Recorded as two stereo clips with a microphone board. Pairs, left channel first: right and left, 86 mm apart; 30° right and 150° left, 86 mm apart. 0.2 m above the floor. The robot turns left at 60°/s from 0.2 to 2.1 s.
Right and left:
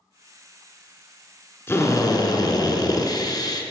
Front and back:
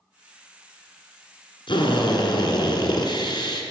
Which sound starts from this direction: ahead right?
A drill, at 1.7 s.